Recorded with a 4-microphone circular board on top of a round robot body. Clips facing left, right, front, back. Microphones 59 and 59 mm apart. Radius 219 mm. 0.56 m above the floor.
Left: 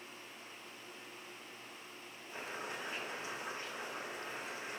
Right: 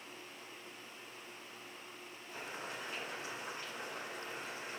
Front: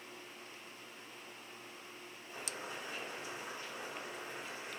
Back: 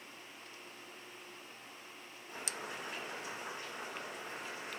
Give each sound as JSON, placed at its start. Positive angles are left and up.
{"t": 2.3, "sound": "boiling", "azimuth_deg": 150, "distance_m": 3.0}